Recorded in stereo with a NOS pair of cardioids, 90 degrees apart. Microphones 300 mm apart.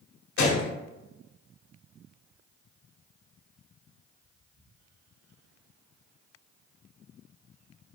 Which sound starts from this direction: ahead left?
A gunshot, at 0.4 s.